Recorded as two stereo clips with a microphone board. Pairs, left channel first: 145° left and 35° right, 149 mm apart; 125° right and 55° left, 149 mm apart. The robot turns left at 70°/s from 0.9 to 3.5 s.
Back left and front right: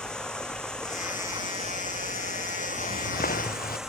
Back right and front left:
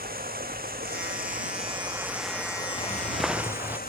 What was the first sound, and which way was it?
Running water, 60° left.